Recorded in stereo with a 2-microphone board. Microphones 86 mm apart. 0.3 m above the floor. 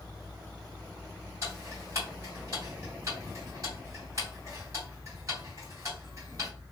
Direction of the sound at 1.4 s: 35° right (ahead or behind).